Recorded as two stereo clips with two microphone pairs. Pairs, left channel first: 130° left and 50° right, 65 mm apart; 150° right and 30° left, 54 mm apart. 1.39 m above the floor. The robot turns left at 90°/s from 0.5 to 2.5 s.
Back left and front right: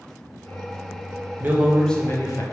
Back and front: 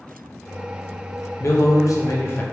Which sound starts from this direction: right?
A man speaking, at 1.4 s.